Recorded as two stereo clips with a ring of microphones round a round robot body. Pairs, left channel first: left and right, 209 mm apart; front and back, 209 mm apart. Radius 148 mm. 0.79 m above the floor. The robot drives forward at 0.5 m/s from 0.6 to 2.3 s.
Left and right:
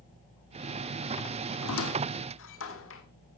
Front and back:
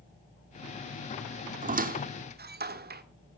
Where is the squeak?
125° left, 1.4 m; by 3.0 s 135° left, 1.6 m.